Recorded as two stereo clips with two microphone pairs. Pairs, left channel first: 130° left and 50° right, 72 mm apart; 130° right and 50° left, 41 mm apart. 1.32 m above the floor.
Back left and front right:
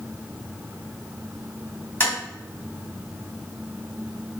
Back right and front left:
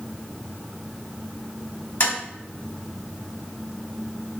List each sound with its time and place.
2.0 s tapping: 165° right, 1.5 m